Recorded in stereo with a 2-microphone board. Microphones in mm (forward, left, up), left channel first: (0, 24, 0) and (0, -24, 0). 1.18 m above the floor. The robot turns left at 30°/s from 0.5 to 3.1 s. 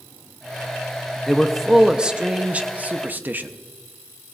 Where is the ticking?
I don't hear ticking.